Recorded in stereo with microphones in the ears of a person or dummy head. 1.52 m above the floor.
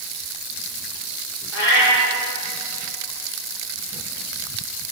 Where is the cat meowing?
70° left (ahead or behind), 5.5 m.